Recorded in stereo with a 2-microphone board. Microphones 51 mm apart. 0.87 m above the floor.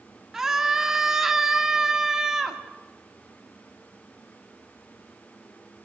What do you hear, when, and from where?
0.3 s a scream: 10° right (ahead or behind), 2 m